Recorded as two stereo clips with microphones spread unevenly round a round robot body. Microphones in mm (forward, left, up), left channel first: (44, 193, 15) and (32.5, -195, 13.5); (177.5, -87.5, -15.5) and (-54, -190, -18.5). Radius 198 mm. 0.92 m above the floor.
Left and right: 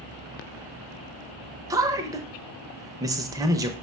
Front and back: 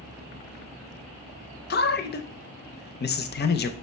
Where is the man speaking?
15° right, 0.6 m.